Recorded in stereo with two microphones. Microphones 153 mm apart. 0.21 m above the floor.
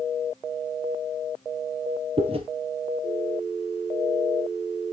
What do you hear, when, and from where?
2.2 s chewing: 40° right (ahead or behind), 2.5 m